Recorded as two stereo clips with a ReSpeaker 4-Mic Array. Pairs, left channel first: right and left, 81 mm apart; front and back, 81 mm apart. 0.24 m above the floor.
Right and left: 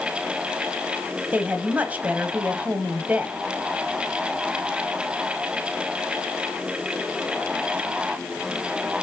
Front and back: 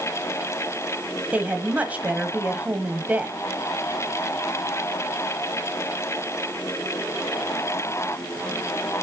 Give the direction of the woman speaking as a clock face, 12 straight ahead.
7 o'clock.